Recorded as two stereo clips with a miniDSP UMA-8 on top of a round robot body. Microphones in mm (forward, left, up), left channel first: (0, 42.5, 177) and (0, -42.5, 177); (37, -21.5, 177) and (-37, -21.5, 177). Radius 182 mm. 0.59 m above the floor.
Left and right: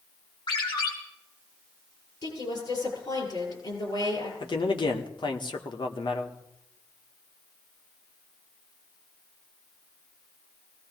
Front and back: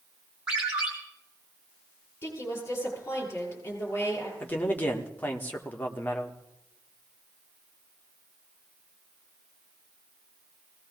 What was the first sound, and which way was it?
A ringtone, 105° left.